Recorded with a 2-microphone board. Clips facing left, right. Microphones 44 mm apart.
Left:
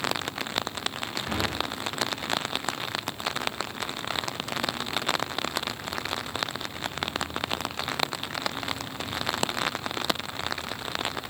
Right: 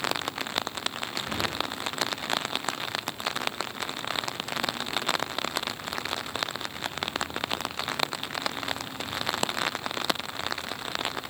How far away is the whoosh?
About 5 m.